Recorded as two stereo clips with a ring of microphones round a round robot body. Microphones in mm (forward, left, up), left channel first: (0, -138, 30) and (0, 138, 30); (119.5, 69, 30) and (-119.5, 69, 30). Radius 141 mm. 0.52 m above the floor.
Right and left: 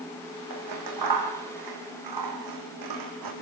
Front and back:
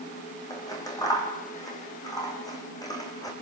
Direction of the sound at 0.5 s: 75° left.